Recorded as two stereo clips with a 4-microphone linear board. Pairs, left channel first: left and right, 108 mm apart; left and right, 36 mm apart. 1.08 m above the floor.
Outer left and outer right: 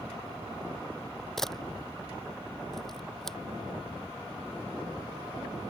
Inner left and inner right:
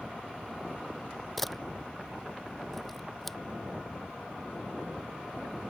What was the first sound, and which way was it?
A camera shutter, 5° left (ahead or behind).